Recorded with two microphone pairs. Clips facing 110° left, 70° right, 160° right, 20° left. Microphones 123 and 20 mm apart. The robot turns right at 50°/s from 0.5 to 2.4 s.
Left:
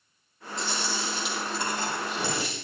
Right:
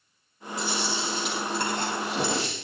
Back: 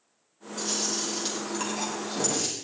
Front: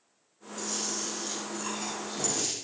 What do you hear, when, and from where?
0.6 s chewing: 150° right, 5.5 m; by 2.5 s 60° right, 5.5 m